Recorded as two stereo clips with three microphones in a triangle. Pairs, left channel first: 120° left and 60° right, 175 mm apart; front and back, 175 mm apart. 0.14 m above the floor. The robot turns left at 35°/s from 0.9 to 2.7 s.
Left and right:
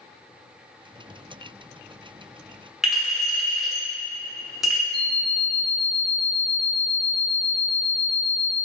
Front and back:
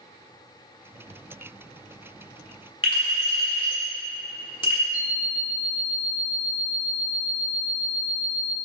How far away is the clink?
About 1.2 m.